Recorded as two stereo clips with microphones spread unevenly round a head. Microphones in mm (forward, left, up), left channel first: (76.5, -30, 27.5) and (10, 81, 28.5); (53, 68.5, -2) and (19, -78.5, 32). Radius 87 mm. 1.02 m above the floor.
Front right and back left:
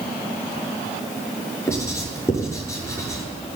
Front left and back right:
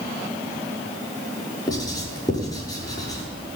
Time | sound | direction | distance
1.7 | writing | 10° left | 6 m